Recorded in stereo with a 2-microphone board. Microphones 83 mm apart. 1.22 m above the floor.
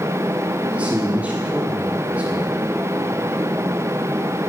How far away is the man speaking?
About 2 m.